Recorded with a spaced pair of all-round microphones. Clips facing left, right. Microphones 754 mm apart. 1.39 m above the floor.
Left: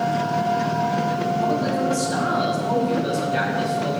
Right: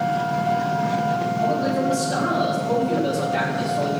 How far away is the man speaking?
About 9 m.